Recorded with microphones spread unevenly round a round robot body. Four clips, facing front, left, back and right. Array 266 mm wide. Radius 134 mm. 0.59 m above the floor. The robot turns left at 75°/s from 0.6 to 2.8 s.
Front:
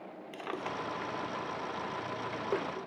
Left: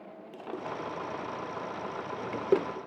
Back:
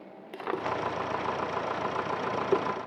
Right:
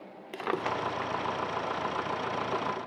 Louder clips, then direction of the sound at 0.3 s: Right 6 dB, back 7 dB; 100° right.